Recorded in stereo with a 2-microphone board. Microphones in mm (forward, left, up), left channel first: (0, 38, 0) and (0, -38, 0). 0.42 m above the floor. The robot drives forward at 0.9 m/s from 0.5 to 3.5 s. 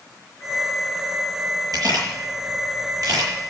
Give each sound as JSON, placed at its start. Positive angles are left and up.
{"t": 1.7, "sound": "a camera shutter", "side_deg": -60, "distance_m": 8.5}